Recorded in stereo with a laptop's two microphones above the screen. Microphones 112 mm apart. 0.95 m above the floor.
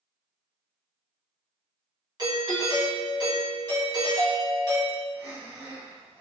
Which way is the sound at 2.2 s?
40° right (ahead or behind).